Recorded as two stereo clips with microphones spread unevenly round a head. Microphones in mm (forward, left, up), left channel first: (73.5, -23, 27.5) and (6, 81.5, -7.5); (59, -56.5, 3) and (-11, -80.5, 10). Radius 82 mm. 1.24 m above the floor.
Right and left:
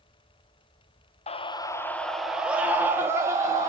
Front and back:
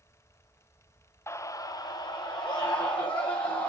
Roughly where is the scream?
Ahead.